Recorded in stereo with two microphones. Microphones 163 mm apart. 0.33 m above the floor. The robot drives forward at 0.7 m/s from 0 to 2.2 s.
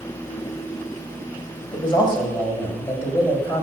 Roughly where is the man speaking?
Left.